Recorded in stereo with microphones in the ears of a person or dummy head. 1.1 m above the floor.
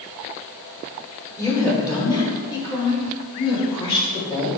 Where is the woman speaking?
20° left (ahead or behind), 3 m; by 4.5 s 35° left (ahead or behind), 7 m.